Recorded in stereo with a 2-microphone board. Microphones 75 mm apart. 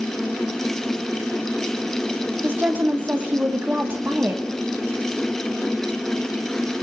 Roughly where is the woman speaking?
Right.